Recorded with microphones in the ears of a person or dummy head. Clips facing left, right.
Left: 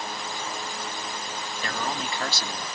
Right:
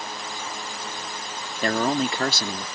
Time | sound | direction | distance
1.6 | a man speaking | 45° right (ahead or behind) | ?